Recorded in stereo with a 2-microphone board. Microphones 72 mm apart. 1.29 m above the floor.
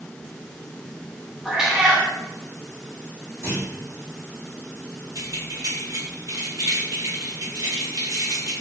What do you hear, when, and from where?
1.4 s a cat meowing: 10° right (ahead or behind), 0.9 m
3.4 s a clunk: 40° right (ahead or behind), 1.4 m
5.2 s keys jangling: 55° right (ahead or behind), 1.8 m